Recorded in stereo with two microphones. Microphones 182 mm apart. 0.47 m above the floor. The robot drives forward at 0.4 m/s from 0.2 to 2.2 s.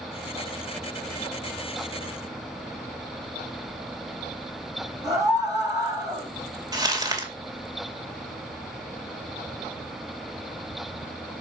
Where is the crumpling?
20° right (ahead or behind), 2 m.